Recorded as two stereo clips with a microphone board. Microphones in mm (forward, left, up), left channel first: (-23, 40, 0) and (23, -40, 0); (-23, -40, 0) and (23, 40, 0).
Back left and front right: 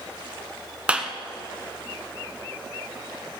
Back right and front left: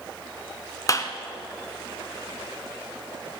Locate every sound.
0.9 s a clap: 130° right, 1.2 m